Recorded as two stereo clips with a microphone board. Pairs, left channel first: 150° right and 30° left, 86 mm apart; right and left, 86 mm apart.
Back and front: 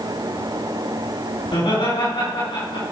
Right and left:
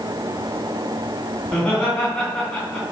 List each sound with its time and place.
1.4 s laughter: 160° right, 3.5 m